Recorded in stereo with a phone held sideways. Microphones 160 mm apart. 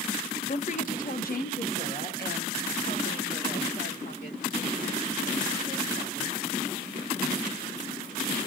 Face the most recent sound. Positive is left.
turn(degrees=70)  # may be behind; listen again after turning